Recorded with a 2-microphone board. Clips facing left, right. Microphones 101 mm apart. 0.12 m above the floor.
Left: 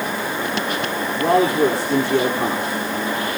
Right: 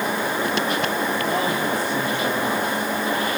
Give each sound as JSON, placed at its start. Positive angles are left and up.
{"t": 1.1, "sound": "a man speaking", "side_deg": 80, "distance_m": 9.5}